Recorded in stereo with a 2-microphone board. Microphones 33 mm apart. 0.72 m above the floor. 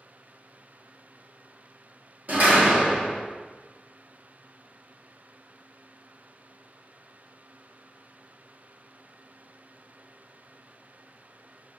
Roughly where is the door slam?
Right.